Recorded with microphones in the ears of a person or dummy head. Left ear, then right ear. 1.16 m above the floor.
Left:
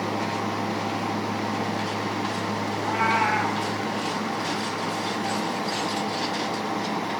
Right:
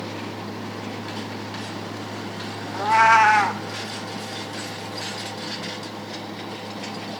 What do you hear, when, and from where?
2.7 s a cat meowing: 55° right (ahead or behind), 0.9 m